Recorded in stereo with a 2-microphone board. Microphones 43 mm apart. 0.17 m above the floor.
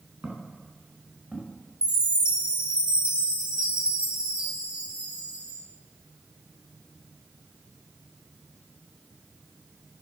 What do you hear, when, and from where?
0.2 s footsteps: 30° right (ahead or behind), 6 m; by 1.6 s 35° right (ahead or behind), 5.5 m
1.8 s a chime: 25° right (ahead or behind), 5.5 m